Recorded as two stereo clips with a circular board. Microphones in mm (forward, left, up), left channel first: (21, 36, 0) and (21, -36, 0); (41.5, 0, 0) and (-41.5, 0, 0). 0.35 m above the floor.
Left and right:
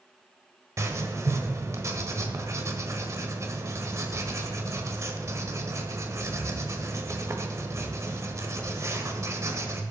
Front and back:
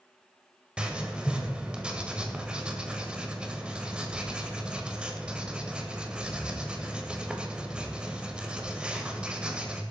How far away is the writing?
About 1.6 m.